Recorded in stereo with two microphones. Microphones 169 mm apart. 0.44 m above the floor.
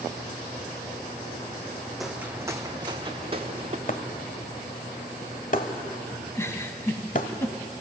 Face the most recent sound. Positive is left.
turn(degrees=15)  # may be behind; listen again after turning